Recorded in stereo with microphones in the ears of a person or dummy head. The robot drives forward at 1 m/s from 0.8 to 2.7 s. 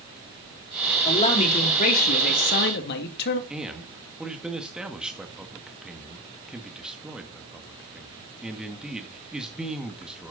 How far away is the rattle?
I don't hear a rattle.